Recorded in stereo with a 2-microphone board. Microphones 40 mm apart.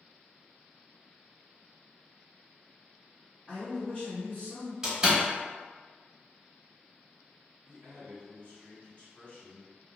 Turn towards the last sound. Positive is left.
turn(degrees=35)  # may be behind; listen again after turning